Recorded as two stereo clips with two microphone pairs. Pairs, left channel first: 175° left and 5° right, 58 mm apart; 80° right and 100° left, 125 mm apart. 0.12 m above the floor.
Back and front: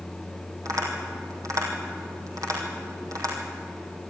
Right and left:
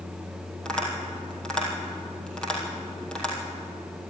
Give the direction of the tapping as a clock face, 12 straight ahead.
12 o'clock.